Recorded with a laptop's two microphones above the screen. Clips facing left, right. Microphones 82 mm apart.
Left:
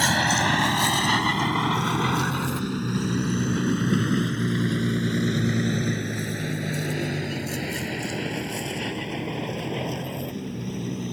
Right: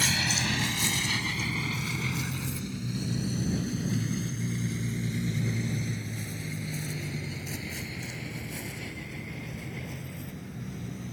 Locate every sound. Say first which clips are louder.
0.0 s a vehicle: left 9 dB; 55° left (ahead or behind); by 11.1 s 75° left (ahead or behind)